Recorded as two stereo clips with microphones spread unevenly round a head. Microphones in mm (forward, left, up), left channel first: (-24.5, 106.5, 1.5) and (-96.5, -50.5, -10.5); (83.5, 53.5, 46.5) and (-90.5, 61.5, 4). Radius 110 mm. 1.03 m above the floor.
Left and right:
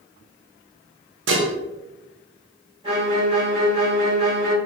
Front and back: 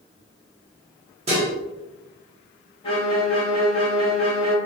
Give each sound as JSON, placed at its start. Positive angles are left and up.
{"t": 1.3, "sound": "dishes clattering", "azimuth_deg": -120, "distance_m": 0.7}
{"t": 2.8, "sound": "a violin", "azimuth_deg": -70, "distance_m": 0.8}